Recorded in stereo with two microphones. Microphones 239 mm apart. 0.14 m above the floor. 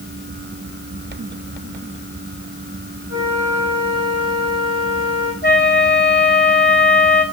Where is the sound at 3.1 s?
65° left (ahead or behind), 6 m.